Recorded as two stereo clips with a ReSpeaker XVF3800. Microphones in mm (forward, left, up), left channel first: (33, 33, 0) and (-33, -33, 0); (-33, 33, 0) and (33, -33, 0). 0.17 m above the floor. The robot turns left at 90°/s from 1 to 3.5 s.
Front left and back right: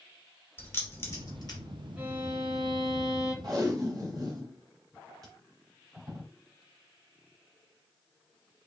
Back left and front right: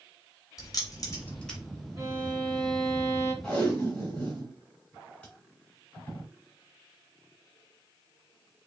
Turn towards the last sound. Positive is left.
turn(degrees=-150)